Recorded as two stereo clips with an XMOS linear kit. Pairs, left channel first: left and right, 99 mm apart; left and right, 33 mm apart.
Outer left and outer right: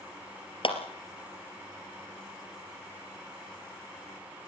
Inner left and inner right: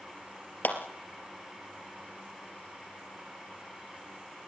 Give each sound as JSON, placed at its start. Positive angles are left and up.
{"t": 0.6, "sound": "a clap", "side_deg": 60, "distance_m": 3.0}